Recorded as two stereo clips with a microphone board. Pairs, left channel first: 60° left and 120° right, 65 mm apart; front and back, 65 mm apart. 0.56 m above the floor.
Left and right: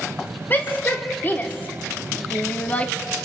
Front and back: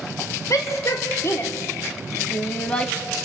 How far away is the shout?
About 2 m.